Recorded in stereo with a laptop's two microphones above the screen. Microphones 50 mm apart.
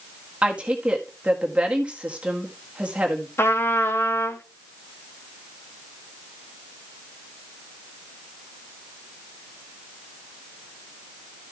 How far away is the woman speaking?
About 1.9 m.